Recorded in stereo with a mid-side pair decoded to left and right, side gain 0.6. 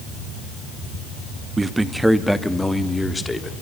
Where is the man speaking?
20° right, 1.2 m; by 3.6 s 15° left, 2.5 m.